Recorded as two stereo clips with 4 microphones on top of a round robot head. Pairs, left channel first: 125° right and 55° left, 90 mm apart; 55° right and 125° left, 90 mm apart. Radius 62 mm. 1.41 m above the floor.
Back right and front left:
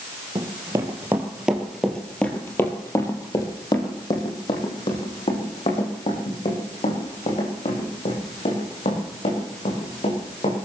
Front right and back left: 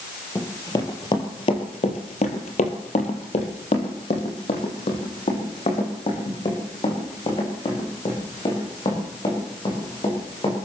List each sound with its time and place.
0.3 s running footsteps: 5° left, 2.5 m; by 10.6 s 100° right, 9.5 m